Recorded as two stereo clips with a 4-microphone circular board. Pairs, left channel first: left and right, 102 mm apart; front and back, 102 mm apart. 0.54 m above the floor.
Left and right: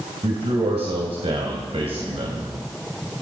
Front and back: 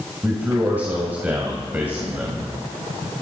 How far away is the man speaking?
About 2.5 m.